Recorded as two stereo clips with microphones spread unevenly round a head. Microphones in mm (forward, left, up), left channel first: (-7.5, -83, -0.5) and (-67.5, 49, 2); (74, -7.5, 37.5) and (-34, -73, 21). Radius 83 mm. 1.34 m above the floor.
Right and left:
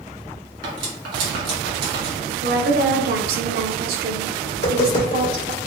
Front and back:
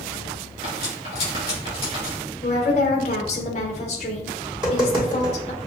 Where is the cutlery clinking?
85° left, 1.9 m.